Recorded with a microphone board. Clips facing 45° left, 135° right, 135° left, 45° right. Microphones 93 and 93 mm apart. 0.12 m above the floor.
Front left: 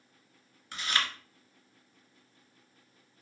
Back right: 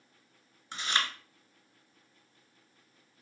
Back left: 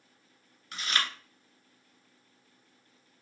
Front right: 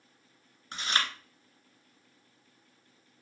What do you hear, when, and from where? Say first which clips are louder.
0.7 s chewing: even, front right 1 dB; 85° right, 0.7 m